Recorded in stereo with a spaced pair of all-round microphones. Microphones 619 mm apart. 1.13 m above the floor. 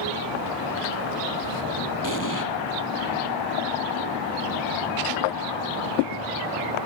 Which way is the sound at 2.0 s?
30° left (ahead or behind).